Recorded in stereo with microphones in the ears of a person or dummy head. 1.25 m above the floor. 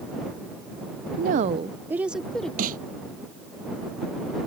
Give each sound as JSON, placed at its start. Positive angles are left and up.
{"t": 1.2, "sound": "a woman speaking", "side_deg": -60}
{"t": 2.6, "sound": "a snare drum", "side_deg": -50}